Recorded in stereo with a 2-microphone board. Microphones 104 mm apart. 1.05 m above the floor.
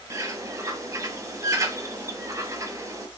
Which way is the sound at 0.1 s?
30° right (ahead or behind).